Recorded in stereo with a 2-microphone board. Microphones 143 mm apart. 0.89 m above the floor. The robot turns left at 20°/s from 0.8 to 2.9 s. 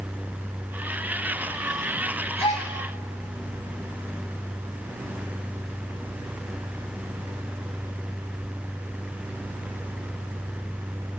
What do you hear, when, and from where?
2.4 s a gasp: 40° left (ahead or behind), 3 m; by 2.7 s 50° left (ahead or behind), 3 m